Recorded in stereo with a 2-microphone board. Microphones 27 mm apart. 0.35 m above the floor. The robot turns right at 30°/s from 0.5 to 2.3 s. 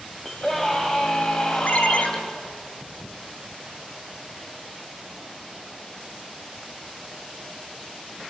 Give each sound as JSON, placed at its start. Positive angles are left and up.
{"t": 0.2, "sound": "a scream", "azimuth_deg": 20, "distance_m": 2.5}
{"t": 1.6, "sound": "a ringtone", "side_deg": 60, "distance_m": 2.5}